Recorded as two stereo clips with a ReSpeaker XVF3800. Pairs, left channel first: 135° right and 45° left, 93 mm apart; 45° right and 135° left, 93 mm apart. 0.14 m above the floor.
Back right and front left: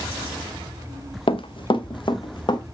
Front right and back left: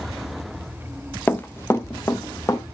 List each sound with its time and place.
1.3 s running footsteps: 115° right, 1.4 m; by 2.6 s 100° right, 2 m